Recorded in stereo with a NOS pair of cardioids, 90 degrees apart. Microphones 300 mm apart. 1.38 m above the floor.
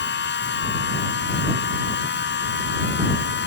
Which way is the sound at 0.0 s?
40° left.